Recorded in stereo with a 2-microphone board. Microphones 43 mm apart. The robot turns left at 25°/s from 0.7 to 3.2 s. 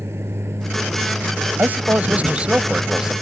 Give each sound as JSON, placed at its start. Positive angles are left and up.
{"t": 0.0, "sound": "a vehicle", "azimuth_deg": -105}
{"t": 1.6, "sound": "a man speaking", "azimuth_deg": -135}